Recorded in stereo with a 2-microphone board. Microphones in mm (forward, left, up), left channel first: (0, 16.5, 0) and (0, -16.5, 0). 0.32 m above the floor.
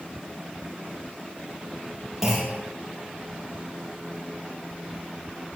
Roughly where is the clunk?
Centre.